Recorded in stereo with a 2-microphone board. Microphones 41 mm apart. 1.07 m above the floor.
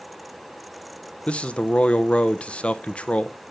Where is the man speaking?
30° left (ahead or behind), 0.8 m.